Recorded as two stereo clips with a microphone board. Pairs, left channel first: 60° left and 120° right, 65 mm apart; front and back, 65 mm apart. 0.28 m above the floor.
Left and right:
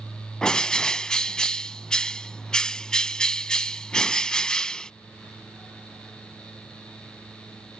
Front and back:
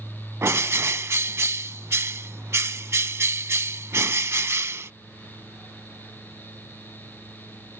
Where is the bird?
140° left.